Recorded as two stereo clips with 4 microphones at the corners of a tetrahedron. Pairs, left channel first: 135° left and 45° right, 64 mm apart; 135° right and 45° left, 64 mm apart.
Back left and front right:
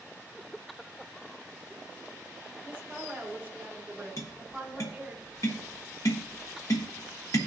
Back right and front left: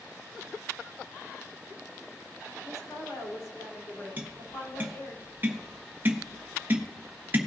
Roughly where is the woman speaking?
Behind right.